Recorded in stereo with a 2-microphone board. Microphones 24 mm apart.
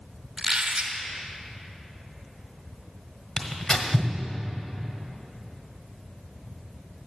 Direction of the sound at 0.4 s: 45° right (ahead or behind).